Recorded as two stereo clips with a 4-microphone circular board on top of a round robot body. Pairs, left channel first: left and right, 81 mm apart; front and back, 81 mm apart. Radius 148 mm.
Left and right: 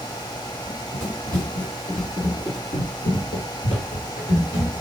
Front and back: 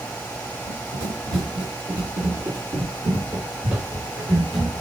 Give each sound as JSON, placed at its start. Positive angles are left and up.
{"t": 0.7, "sound": "running footsteps", "azimuth_deg": 165, "distance_m": 2.5}